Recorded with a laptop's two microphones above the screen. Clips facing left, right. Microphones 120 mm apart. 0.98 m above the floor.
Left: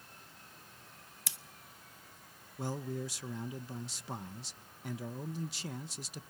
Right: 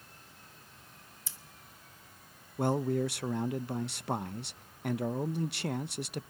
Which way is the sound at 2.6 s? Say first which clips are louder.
Right 9 dB; 65° right (ahead or behind).